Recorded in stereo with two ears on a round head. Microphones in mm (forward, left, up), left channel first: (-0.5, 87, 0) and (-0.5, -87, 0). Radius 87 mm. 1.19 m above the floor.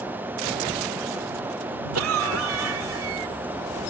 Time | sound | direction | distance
1.9 | a cough | 85° right | ?